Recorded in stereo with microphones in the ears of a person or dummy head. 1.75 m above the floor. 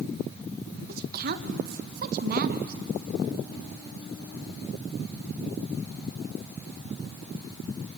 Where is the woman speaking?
55° right (ahead or behind), 1.6 m.